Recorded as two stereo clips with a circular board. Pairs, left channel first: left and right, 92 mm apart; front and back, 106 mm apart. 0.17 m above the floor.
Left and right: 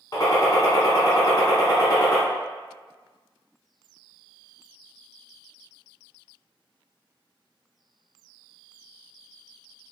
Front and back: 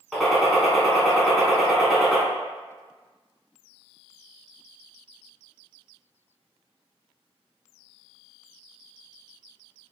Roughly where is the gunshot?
Left.